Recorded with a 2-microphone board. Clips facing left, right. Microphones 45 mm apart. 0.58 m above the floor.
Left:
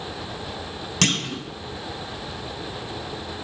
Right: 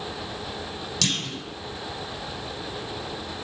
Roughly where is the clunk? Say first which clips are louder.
Left 5 dB; left.